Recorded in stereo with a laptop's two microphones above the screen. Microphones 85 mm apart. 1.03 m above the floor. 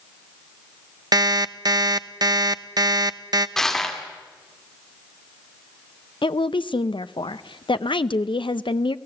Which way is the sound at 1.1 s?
50° right (ahead or behind).